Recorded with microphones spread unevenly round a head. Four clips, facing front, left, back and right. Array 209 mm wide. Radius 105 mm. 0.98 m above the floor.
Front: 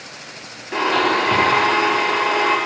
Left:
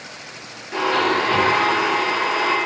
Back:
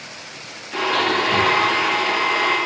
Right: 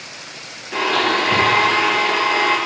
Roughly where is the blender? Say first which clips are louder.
Even, front 2 dB; ahead.